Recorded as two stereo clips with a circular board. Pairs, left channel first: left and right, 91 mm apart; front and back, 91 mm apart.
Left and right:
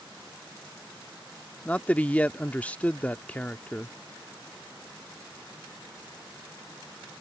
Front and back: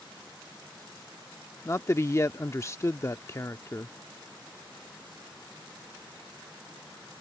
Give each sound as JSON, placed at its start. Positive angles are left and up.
{"t": 1.6, "sound": "a man speaking", "azimuth_deg": 25}